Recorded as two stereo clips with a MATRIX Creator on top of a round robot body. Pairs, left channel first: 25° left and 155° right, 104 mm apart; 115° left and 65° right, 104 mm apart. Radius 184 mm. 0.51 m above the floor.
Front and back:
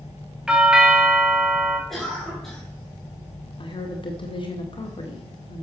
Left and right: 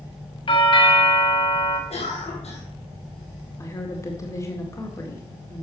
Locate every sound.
0.5 s a doorbell: 120° left, 2 m
1.9 s a cough: 110° left, 3.5 m
3.6 s a woman speaking: 55° left, 2 m